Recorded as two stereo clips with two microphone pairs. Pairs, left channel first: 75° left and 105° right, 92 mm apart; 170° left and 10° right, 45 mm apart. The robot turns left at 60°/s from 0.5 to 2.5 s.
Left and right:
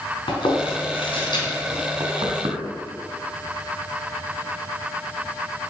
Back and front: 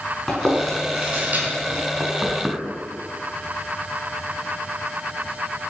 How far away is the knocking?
About 3.5 m.